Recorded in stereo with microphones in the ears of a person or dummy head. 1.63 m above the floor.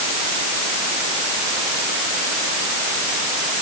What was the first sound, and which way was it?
Only background noise.